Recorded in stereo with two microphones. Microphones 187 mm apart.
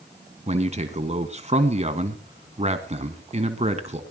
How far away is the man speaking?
About 1.7 m.